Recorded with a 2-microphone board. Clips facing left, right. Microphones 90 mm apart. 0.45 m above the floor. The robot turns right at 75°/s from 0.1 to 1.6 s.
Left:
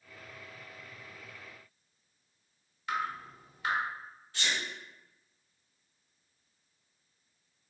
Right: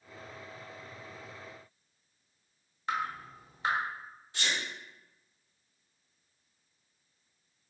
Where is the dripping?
35° right (ahead or behind), 0.8 m.